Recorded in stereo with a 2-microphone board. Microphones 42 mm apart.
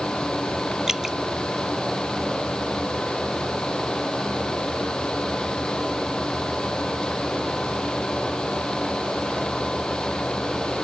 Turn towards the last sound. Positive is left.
turn(degrees=-15)  # may be behind; listen again after turning